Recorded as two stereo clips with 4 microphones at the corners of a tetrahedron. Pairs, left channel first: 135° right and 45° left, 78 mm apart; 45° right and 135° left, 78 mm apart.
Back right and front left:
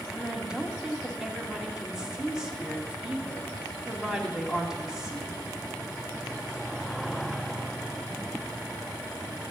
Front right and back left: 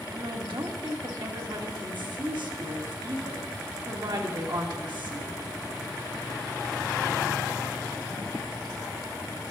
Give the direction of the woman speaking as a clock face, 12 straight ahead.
8 o'clock.